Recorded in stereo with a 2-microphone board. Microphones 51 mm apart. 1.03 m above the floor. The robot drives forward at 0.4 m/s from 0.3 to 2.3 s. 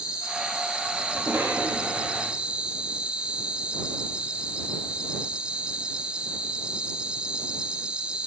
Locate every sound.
0.0 s an insect: 15° right (ahead or behind), 1.2 m; by 8.3 s 20° right (ahead or behind), 0.9 m
1.1 s a cough: 45° right (ahead or behind), 2 m; by 2.3 s 50° right (ahead or behind), 1.8 m